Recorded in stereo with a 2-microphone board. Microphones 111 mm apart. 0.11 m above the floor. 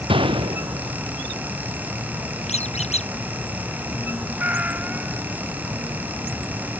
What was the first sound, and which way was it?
A gunshot, 50° right (ahead or behind).